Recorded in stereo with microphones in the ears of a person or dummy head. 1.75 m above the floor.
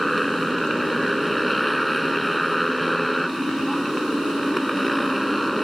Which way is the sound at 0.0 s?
Centre (ahead or behind).